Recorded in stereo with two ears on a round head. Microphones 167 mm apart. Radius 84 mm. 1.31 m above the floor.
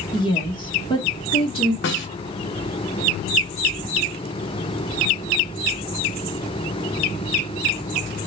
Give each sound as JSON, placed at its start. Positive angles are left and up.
{"t": 0.1, "sound": "a woman speaking", "side_deg": 25, "distance_m": 1.3}
{"t": 1.8, "sound": "a snare drum", "side_deg": 70, "distance_m": 1.0}